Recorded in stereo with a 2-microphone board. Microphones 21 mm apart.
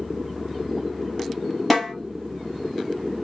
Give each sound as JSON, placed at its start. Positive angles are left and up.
{"t": 1.7, "sound": "a snare drum", "side_deg": 10, "distance_m": 1.3}